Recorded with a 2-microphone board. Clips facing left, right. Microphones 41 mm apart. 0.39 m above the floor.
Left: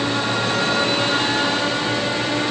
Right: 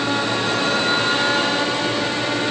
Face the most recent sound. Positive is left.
No sound to turn to.